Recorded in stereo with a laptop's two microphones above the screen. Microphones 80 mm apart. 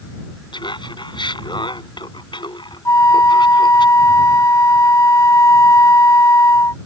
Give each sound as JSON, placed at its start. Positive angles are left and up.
{"t": 0.5, "sound": "laughter", "side_deg": 75}
{"t": 2.9, "sound": "a flute", "side_deg": 40}